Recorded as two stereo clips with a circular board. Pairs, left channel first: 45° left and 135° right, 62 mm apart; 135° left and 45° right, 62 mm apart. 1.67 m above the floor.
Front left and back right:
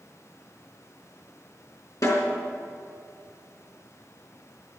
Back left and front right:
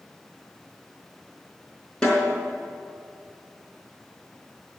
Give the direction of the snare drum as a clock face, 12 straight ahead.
10 o'clock.